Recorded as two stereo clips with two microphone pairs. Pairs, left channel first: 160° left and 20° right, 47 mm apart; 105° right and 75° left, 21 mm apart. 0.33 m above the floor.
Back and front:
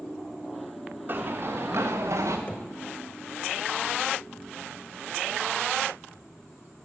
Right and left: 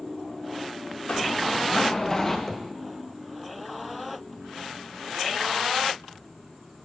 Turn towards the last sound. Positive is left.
turn(degrees=180)